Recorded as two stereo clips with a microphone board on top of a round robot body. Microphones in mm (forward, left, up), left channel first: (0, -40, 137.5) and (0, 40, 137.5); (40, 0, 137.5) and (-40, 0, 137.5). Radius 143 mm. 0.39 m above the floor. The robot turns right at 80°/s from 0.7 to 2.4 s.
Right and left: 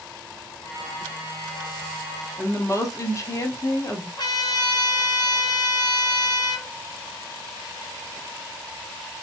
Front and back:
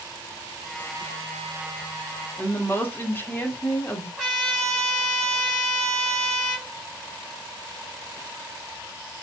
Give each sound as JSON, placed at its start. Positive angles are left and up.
{"t": 2.4, "sound": "a woman speaking", "azimuth_deg": -55, "distance_m": 1.1}
{"t": 4.2, "sound": "a trumpet", "azimuth_deg": -80, "distance_m": 2.0}